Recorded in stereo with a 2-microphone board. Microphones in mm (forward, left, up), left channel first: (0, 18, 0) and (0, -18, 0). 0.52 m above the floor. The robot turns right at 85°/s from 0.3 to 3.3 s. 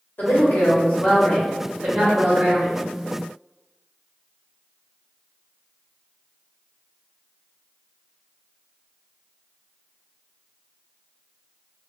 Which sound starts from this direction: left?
A woman speaking, at 0.2 s.